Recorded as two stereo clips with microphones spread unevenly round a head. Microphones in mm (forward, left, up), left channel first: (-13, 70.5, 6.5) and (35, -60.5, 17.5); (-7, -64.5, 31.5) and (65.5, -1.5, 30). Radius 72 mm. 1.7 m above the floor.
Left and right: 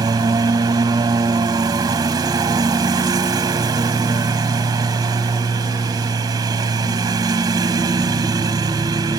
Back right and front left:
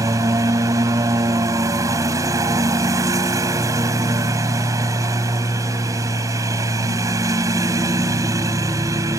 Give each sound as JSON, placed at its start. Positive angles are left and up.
{"t": 0.0, "sound": "a lawn mower", "azimuth_deg": -10}